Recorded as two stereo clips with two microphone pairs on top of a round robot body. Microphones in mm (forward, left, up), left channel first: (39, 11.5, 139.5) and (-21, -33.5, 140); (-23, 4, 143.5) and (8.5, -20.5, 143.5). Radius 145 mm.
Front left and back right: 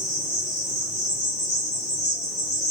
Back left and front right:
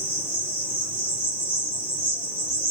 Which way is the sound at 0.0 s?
30° left.